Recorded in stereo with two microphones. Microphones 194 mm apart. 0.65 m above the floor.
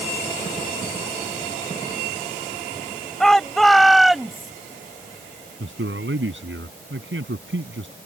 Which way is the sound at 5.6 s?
80° right.